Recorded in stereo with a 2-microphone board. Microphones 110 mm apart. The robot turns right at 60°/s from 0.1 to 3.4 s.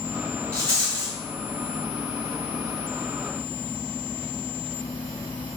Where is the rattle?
25° right (ahead or behind), 1.8 m.